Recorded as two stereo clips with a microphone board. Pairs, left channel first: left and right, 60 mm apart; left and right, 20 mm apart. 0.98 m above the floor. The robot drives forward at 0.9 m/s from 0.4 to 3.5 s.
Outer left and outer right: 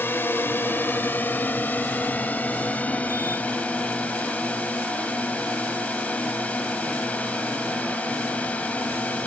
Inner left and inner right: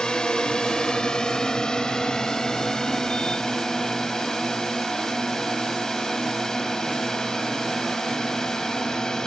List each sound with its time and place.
0.0 s a drone: 40° left (ahead or behind); by 9.3 s 25° left (ahead or behind)